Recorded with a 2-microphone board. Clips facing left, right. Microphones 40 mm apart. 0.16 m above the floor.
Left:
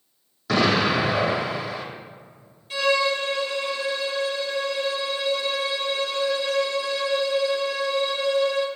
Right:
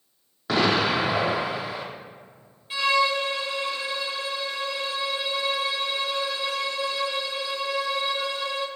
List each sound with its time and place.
0.5 s an explosion: 20° right (ahead or behind), 2.5 m
2.7 s a violin: 15° right (ahead or behind), 1.6 m